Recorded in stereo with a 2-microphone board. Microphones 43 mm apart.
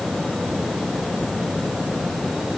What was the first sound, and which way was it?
Only background noise.